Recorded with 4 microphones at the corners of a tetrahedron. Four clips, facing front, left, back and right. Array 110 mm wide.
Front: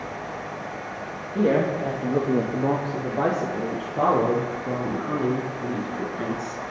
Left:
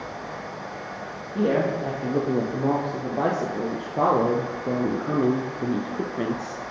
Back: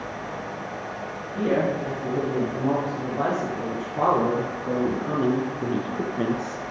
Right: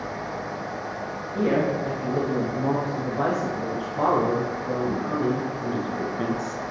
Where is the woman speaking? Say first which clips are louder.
Even, front 2 dB; 30° left, 4 m; by 6.6 s 140° left, 2.5 m.